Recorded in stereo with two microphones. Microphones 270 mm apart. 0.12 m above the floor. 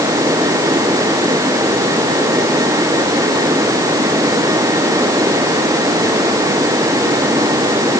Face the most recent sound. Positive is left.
No sound to turn to.